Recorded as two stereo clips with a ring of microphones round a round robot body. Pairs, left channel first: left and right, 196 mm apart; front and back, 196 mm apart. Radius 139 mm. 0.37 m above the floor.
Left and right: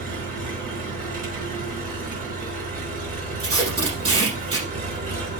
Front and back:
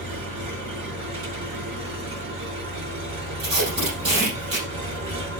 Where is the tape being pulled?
145° right, 4 m.